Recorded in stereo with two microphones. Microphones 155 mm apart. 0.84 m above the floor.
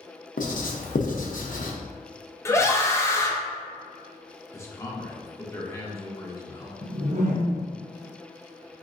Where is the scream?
20° left (ahead or behind), 0.6 m.